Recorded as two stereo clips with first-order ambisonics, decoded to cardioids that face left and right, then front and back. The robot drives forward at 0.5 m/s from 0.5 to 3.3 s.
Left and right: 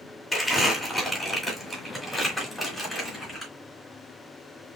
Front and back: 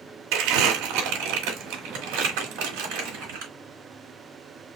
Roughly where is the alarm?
I don't hear an alarm.